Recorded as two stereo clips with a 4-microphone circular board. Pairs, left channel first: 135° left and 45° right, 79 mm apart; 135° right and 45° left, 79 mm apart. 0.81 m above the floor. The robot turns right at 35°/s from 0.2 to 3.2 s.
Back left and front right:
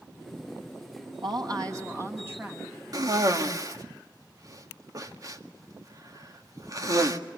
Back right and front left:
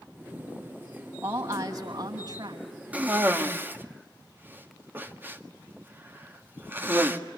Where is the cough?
25° right, 1.8 m; by 7.2 s 15° right, 1.8 m.